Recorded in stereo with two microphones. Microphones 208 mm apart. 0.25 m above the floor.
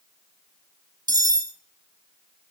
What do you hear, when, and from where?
1.1 s cutlery clinking: 20° right (ahead or behind), 0.8 m